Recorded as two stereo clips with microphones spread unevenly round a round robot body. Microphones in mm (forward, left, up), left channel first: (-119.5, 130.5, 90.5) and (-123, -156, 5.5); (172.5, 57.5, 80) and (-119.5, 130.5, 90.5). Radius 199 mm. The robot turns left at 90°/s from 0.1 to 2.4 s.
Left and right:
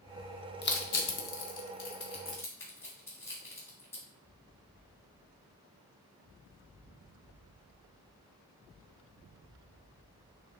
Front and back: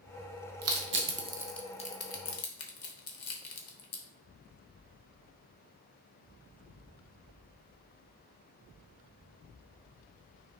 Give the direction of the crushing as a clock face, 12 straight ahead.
7 o'clock.